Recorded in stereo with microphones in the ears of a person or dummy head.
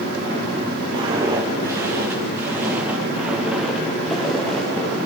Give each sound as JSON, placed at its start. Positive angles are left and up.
{"t": 0.9, "sound": "footsteps", "side_deg": -30, "distance_m": 5.5}